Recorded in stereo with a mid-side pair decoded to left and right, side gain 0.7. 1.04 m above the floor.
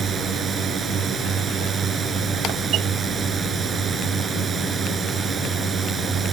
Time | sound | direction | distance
0.0 | a drone | 30° right | ?